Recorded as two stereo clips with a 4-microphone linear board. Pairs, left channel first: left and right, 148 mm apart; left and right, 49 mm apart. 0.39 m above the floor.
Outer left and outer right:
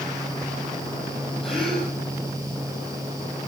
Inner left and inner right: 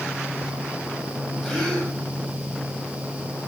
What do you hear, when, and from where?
1.4 s a gasp: centre (ahead or behind), 7.5 m